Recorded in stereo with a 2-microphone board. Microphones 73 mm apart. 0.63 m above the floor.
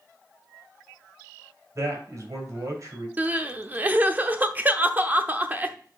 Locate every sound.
1.8 s a man speaking: 50° right (ahead or behind), 2.5 m
3.2 s crying: 25° right (ahead or behind), 0.6 m